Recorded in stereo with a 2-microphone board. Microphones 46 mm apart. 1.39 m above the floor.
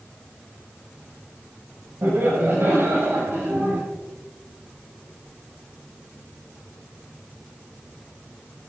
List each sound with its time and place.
2.0 s laughter: 65° right (ahead or behind), 7 m; by 3.8 s 55° right (ahead or behind), 7.5 m